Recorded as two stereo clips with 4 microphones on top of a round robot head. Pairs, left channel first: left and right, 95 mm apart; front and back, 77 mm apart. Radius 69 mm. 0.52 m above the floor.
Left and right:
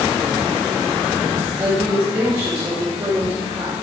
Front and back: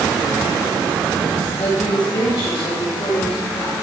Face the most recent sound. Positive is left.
turn(degrees=-40)